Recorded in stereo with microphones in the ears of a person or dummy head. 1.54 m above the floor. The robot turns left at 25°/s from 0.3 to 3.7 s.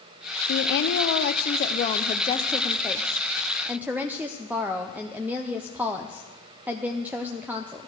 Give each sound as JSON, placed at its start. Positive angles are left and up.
{"t": 0.5, "sound": "a woman speaking", "azimuth_deg": 70, "distance_m": 0.7}